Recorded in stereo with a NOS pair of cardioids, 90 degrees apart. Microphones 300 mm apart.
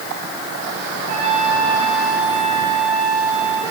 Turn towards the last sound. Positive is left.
turn(degrees=-65)